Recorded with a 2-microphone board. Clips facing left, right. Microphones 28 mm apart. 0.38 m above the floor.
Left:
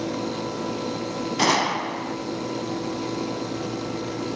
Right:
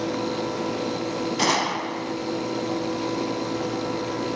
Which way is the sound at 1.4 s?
5° left (ahead or behind).